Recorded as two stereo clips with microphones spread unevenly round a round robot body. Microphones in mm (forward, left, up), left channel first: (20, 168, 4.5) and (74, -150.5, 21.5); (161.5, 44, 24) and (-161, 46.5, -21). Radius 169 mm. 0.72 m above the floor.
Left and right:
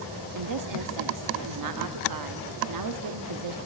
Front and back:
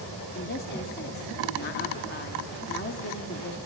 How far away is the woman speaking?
About 1.4 m.